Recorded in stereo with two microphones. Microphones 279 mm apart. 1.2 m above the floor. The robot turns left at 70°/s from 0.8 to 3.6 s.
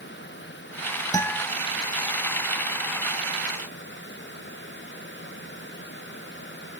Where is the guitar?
15° left (ahead or behind), 1.3 m; by 1.4 s 5° right (ahead or behind), 1.3 m.